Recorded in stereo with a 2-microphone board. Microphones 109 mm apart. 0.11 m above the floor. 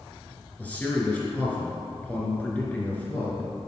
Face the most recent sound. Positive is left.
turn(degrees=15)  # may be behind; listen again after turning